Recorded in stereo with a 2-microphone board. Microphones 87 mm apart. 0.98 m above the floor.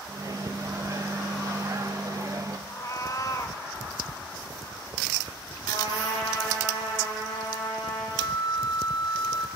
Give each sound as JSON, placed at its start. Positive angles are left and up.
{"t": 0.1, "sound": "a microwave", "side_deg": -40, "distance_m": 0.5}
{"t": 2.7, "sound": "a cat meowing", "side_deg": 45, "distance_m": 0.5}
{"t": 5.7, "sound": "a trumpet", "side_deg": 75, "distance_m": 5.0}
{"t": 8.2, "sound": "a flute", "side_deg": 55, "distance_m": 0.5}